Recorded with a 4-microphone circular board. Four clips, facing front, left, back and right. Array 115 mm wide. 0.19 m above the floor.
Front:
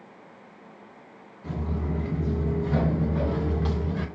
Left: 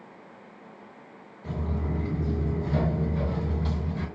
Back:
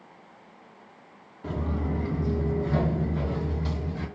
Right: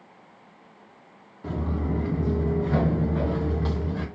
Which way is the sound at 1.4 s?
120° right.